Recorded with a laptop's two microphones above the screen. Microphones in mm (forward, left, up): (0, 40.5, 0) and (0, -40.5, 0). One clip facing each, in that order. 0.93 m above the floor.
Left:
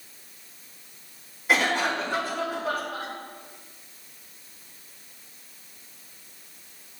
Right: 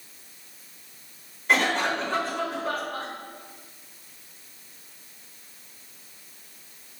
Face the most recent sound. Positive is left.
turn(degrees=5)  # may be behind; listen again after turning